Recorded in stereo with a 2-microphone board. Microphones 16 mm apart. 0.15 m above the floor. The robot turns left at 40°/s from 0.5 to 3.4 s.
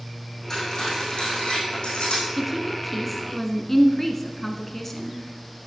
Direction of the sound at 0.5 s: 25° left (ahead or behind).